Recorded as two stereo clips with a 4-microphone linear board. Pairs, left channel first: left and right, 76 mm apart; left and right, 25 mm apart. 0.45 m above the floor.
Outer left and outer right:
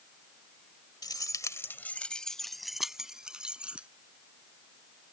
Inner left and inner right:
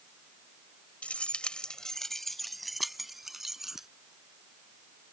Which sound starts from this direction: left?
Keys jangling, at 1.0 s.